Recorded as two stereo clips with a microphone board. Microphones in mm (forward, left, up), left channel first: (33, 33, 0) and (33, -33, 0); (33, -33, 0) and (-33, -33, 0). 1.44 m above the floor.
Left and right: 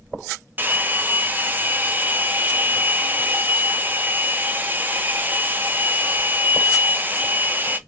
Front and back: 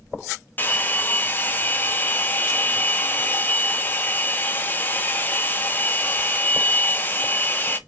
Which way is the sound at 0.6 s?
45° right.